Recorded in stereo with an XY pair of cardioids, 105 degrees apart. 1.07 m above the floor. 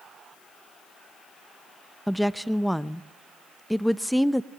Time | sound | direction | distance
2.1 | a woman speaking | straight ahead | 0.8 m